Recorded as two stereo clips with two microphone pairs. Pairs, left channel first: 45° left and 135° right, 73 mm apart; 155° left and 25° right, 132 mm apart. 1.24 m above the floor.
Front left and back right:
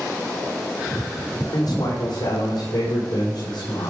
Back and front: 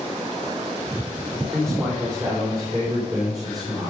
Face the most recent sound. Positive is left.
turn(degrees=35)